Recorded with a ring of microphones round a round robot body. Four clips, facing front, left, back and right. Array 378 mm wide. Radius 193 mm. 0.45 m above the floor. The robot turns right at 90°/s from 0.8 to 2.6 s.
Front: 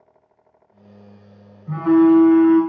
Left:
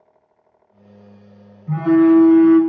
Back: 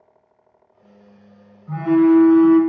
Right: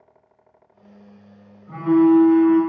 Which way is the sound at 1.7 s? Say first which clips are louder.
Left 2 dB, front 1 dB; 55° left.